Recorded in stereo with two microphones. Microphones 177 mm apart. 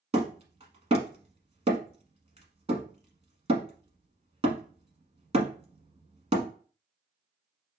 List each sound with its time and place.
0.1 s hammering: 35° right (ahead or behind), 1.0 m